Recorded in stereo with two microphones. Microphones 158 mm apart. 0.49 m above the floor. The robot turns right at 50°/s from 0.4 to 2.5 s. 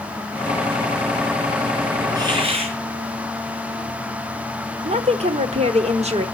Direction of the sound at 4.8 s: 45° right (ahead or behind).